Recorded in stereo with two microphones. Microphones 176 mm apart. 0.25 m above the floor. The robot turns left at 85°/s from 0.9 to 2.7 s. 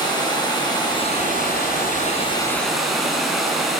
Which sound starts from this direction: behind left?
Running water, at 0.0 s.